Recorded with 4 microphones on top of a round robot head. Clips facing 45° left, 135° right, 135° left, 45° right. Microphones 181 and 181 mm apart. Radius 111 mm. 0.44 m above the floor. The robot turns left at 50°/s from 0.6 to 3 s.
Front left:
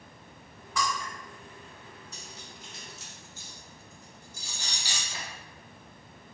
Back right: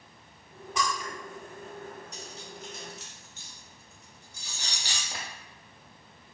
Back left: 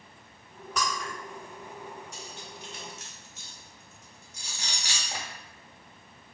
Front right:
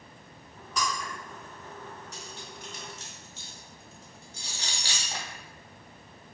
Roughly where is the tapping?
Behind right.